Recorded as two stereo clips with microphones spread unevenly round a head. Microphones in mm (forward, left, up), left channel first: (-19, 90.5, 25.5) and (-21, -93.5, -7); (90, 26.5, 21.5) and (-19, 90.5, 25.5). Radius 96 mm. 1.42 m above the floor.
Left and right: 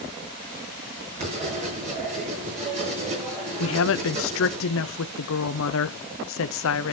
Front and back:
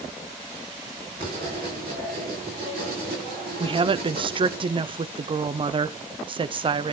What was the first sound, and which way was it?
Writing, 150° right.